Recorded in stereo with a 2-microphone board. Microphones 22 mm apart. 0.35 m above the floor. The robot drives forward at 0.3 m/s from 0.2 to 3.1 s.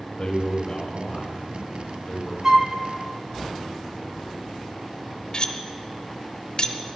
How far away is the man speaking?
About 1.2 m.